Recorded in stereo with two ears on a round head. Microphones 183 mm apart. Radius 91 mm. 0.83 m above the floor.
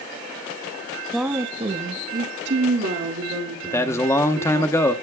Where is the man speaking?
15° left (ahead or behind), 1.1 m.